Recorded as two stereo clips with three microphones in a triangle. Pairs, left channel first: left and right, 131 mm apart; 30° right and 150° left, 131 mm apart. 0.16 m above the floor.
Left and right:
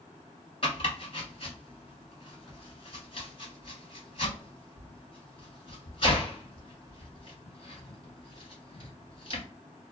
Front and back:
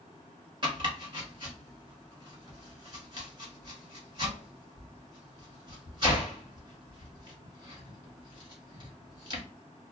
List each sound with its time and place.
0.6 s chopping: 115° left, 1.5 m